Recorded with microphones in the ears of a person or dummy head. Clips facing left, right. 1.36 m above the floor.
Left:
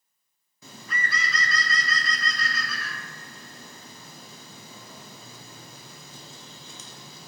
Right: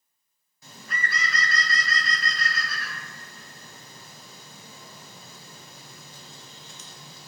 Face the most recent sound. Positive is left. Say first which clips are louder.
# even
turn(degrees=55)  # may be behind; listen again after turning